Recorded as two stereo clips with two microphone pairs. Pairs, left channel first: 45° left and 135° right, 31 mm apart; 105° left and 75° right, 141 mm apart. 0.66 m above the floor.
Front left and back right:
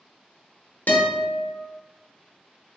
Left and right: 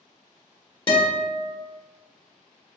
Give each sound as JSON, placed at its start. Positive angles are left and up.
{"t": 0.9, "sound": "a guitar", "azimuth_deg": 55, "distance_m": 0.9}